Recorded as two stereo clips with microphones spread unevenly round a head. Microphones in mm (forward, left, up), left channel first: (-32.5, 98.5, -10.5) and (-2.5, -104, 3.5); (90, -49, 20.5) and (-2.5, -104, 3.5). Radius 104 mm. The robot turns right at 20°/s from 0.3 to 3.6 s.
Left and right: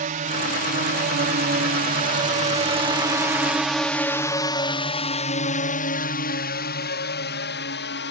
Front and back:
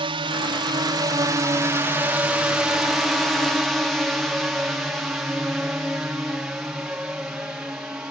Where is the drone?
130° right; by 8.1 s 125° left.